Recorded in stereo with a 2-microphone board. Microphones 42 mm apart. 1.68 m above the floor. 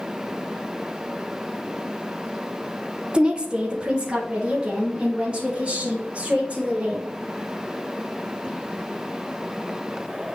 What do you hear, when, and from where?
3.1 s a woman speaking: 25° right (ahead or behind), 0.7 m